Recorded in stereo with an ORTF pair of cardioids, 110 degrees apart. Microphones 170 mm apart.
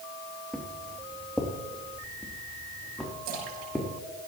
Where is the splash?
70° right, 7 m.